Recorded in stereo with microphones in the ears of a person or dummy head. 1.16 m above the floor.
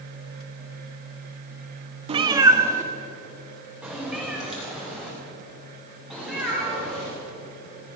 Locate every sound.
2.1 s a cat meowing: 30° right (ahead or behind), 0.7 m; by 7.1 s 5° right (ahead or behind), 6.5 m